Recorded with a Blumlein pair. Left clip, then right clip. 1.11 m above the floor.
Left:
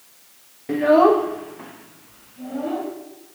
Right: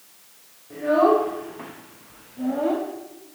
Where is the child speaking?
45° left, 0.6 m; by 2.9 s 25° right, 1.6 m.